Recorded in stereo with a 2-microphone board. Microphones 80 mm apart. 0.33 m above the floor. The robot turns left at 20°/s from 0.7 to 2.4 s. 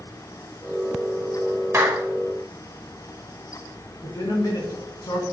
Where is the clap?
30° right (ahead or behind), 1.2 m.